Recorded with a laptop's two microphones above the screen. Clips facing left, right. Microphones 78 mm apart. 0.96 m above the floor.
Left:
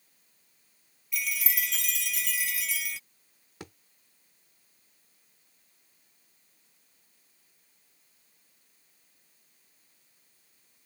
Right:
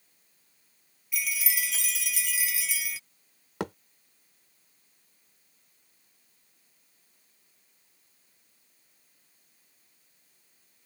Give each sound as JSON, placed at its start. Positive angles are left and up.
{"t": 1.1, "sound": "a chime", "side_deg": -5}
{"t": 3.6, "sound": "a thud", "side_deg": -85}